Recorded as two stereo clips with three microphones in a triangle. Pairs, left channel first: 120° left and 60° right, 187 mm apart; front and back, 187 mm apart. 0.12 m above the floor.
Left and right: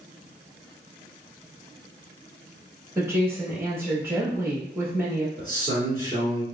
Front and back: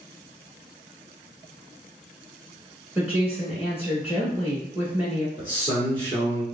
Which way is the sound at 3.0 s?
110° right.